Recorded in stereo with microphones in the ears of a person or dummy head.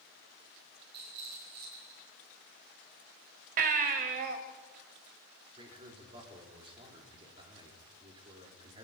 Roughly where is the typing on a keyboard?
I don't hear typing on a keyboard.